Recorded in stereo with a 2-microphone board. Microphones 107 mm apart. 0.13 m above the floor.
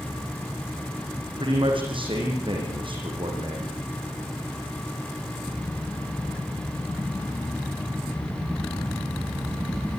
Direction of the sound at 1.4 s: 55° right (ahead or behind).